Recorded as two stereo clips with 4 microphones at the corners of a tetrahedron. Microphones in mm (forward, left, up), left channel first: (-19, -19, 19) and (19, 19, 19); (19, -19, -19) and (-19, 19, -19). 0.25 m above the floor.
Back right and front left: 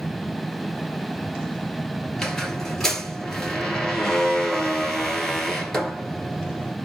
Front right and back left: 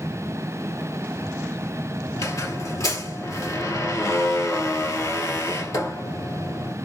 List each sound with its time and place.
2.1 s a squeak: 55° right, 1.5 m